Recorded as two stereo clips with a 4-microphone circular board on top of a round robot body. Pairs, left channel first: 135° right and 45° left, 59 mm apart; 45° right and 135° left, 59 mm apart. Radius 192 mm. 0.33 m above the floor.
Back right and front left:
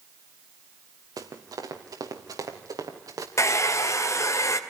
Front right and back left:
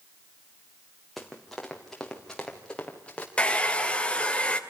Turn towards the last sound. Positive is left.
turn(degrees=-115)